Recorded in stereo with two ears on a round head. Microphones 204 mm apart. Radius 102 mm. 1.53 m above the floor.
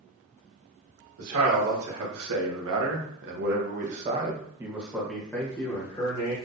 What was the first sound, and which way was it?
A man speaking, 75° right (ahead or behind).